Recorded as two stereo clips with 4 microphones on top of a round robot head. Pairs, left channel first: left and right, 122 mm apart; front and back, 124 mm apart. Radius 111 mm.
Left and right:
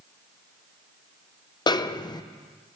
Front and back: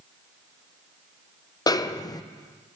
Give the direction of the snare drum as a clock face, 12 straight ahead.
10 o'clock.